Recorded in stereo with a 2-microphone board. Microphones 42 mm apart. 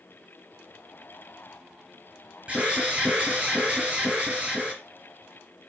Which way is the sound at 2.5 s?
25° right (ahead or behind).